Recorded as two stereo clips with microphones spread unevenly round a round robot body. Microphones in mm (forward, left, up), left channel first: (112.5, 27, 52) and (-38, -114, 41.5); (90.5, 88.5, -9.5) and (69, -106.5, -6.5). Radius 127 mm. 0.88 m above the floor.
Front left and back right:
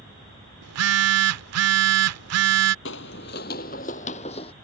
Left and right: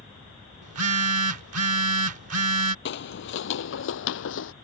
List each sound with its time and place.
0.6 s a phone buzzing: 135° right
2.9 s footsteps: 75° left; by 4.5 s 110° left